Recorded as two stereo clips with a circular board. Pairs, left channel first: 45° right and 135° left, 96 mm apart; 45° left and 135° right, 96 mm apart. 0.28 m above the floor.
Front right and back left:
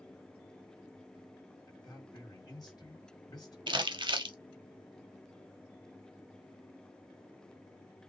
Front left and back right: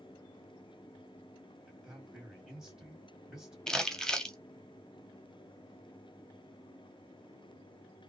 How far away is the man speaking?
About 1.7 m.